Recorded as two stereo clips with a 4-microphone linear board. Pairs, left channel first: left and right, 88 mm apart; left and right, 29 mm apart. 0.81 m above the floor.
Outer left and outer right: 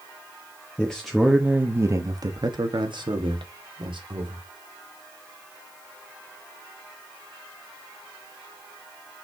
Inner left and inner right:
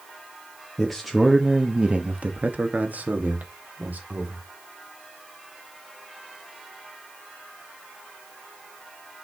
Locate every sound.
0.8 s a man speaking: 10° left (ahead or behind), 1.1 m; by 4.4 s 75° right (ahead or behind), 2.5 m